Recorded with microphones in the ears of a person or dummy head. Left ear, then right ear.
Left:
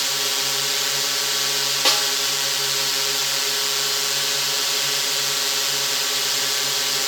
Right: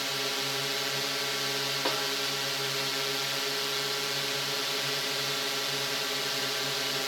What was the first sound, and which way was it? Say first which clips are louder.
A drone: left 8 dB; 30° left (ahead or behind).